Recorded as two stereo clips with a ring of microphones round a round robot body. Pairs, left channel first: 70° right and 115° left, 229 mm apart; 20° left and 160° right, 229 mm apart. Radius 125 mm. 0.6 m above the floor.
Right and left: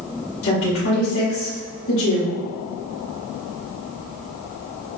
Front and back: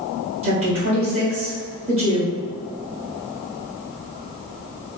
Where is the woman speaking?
95° right, 2.0 m.